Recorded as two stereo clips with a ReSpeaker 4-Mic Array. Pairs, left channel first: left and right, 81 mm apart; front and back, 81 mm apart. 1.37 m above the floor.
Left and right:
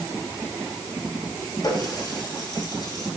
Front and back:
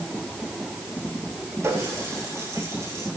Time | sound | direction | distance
1.6 | a running tap | 125° left | 7 m